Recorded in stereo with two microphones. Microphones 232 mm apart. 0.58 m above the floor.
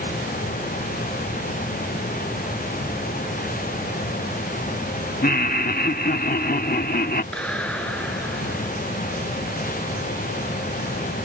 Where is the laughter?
40° left (ahead or behind).